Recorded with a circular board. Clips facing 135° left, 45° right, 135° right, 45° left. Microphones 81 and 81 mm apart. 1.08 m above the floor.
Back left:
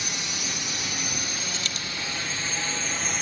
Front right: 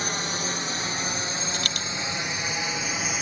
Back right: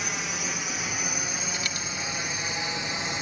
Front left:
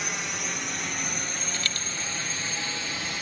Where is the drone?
45° right; by 3.2 s 115° right.